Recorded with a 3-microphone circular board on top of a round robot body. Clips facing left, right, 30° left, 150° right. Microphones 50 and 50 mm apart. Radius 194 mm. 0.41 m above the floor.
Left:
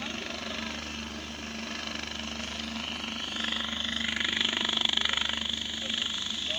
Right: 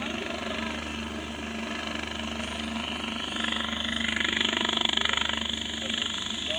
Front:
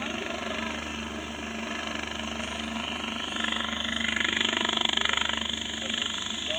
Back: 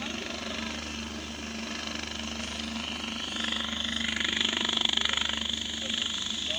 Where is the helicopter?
25° right.